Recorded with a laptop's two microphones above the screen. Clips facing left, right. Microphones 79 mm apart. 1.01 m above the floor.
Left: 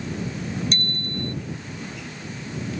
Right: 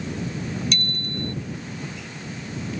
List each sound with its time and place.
0.7 s a bicycle bell: 35° left (ahead or behind)